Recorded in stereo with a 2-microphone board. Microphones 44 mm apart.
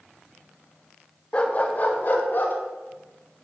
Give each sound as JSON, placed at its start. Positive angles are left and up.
{"t": 1.3, "sound": "a dog barking", "side_deg": 25, "distance_m": 1.1}